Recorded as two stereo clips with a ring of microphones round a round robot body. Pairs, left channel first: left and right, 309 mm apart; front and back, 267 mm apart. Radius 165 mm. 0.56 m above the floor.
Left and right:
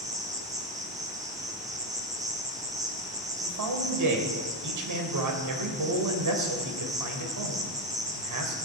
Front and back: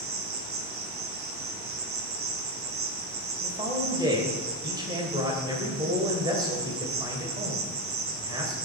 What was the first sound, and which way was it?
An insect, 165° right.